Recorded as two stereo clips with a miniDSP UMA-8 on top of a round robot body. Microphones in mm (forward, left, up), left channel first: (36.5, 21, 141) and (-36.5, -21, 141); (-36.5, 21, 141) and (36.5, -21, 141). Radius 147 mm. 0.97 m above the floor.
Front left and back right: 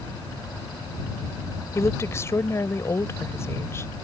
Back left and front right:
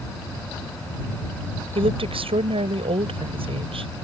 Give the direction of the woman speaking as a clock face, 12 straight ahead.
1 o'clock.